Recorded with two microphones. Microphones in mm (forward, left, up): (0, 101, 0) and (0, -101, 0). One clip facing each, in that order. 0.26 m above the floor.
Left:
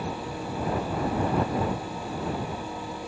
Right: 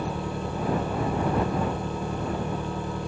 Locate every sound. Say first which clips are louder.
0.0 s an engine running: right 2 dB; 50° right (ahead or behind)